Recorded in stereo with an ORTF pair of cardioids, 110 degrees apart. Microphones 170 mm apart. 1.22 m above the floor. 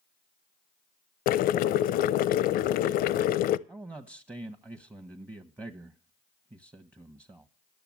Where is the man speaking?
15° right, 0.9 m.